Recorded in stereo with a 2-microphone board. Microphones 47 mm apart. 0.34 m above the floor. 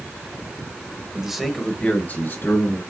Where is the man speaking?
15° right (ahead or behind), 1.2 m; by 2.8 s 60° left (ahead or behind), 2 m.